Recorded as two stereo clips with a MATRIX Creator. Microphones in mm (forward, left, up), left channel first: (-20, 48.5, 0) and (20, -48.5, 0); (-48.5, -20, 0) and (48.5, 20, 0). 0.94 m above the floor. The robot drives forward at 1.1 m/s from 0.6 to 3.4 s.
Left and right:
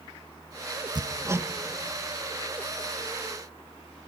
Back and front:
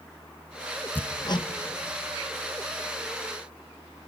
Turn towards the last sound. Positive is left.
turn(degrees=-170)